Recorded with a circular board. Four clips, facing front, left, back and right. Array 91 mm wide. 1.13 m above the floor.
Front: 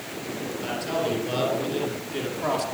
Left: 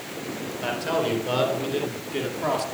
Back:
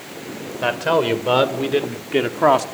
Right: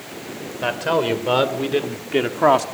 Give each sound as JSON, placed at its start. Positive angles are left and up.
{"t": 0.6, "sound": "a man speaking", "azimuth_deg": -155, "distance_m": 4.0}